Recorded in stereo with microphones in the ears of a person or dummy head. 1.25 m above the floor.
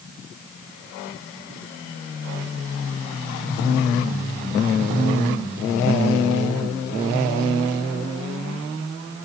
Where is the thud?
No thud in this recording.